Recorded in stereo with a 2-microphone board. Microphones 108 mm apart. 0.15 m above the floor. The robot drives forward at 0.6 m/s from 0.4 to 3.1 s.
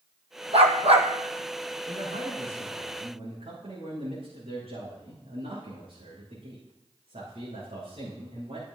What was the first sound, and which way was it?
A dog barking, 65° right (ahead or behind).